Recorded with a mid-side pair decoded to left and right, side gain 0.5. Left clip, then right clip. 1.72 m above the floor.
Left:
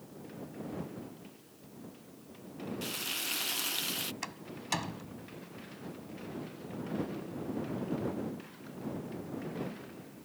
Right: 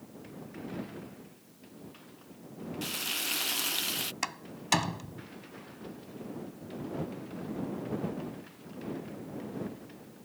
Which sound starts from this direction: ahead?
Frying, at 2.8 s.